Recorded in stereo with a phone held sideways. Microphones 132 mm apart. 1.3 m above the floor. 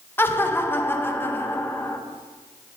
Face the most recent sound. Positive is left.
turn(degrees=15)  # may be behind; listen again after turning